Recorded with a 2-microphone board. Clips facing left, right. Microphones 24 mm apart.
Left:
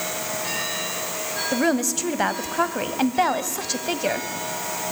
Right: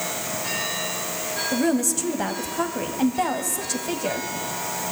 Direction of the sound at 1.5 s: 30° left (ahead or behind).